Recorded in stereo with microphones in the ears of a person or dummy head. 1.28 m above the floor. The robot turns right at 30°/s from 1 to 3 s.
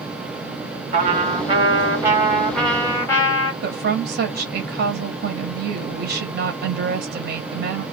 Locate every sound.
0.9 s a trumpet: 45° right, 1.4 m; by 3.5 s 15° left, 1.4 m
3.6 s a woman speaking: 50° right (ahead or behind), 0.6 m